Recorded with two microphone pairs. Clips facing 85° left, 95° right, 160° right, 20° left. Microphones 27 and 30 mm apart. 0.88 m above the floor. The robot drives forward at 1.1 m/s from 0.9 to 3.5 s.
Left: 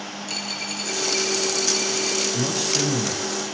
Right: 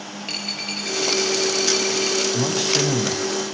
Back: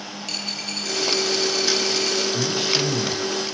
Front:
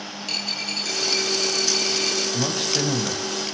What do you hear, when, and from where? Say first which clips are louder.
0.2 s a dropped coin: right 2 dB, front 2 dB; 60° right, 9.5 m; by 2.2 s 70° right, 9 m
2.3 s a man speaking: right 3 dB, back 2 dB; 35° right, 5.5 m; by 3.5 s 45° right, 4.5 m